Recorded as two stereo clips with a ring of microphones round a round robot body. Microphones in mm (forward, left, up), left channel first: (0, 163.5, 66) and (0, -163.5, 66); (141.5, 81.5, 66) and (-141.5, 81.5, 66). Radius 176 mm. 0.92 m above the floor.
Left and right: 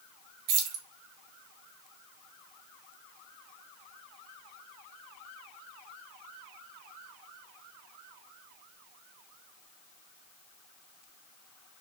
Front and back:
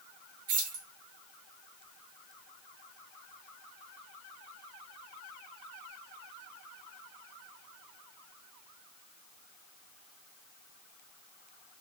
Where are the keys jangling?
120° right, 0.6 m.